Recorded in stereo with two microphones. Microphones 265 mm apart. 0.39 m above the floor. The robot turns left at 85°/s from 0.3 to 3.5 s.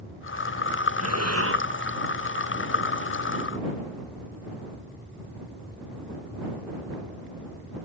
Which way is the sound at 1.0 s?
80° right.